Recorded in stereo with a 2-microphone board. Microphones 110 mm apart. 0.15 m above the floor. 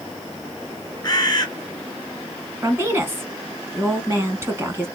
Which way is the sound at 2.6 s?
20° right (ahead or behind).